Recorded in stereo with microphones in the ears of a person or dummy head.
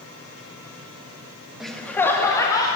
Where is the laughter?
Centre (ahead or behind), 0.8 m; by 2.7 s 20° left (ahead or behind), 1.8 m.